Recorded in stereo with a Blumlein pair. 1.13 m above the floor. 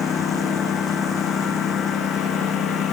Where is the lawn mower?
20° left; by 2.9 s 25° left.